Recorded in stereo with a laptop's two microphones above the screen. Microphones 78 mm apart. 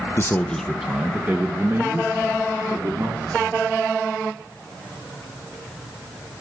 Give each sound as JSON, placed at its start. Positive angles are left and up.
{"t": 0.2, "sound": "a man speaking", "side_deg": 35, "distance_m": 0.8}